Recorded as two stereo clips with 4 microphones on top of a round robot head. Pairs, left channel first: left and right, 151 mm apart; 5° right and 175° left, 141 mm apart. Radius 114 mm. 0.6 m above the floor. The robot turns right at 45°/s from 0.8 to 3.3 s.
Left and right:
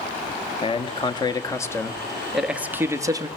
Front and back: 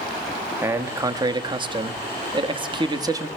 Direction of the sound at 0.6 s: 115° left.